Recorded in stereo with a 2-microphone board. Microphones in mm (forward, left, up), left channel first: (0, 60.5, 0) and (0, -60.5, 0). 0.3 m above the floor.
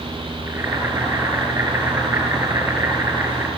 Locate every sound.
0.5 s boiling: 20° right (ahead or behind), 4 m